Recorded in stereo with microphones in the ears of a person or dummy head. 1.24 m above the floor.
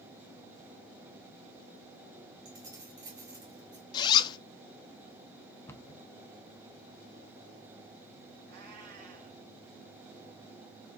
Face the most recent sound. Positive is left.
turn(degrees=-55)  # may be behind; listen again after turning